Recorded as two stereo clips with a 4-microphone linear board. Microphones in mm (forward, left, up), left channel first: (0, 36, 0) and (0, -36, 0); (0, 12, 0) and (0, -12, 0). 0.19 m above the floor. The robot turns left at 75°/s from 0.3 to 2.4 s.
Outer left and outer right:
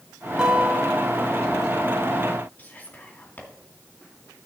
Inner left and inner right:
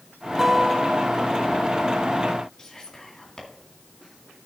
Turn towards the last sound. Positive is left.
turn(degrees=25)  # may be behind; listen again after turning